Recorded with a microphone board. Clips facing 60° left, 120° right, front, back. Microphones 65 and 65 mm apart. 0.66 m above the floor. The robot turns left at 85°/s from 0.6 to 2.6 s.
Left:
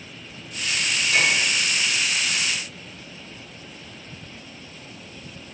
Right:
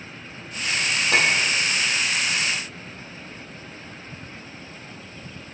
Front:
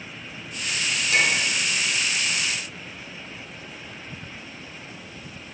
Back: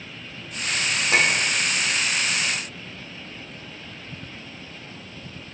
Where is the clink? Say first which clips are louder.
Right 1 dB, back 1 dB; 130° right, 0.9 m; by 1.5 s 160° right, 0.9 m.